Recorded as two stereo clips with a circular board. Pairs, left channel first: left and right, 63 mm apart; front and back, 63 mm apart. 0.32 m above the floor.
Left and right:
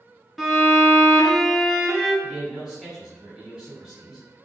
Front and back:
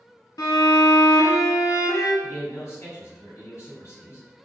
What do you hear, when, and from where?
0.4 s a violin: straight ahead, 0.6 m
2.2 s a man speaking: 20° right, 1.9 m